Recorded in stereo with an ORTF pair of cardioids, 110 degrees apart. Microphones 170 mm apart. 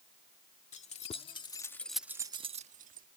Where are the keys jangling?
45° left; by 3.1 s 60° right.